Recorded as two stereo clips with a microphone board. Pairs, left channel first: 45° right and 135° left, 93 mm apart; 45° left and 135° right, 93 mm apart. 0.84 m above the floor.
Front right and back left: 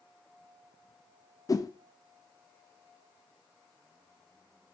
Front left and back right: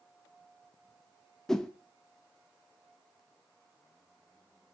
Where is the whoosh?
35° right, 0.9 m.